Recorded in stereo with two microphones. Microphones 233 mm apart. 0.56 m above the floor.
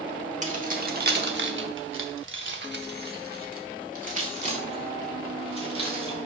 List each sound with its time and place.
0.4 s keys jangling: 30° right (ahead or behind), 1.1 m; by 6.2 s 25° right (ahead or behind), 2.5 m